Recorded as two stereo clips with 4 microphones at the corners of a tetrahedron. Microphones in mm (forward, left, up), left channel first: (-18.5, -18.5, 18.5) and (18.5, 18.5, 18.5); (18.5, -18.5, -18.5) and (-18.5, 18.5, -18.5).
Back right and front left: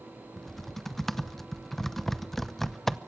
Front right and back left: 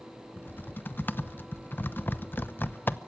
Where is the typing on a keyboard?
55° right, 0.8 m.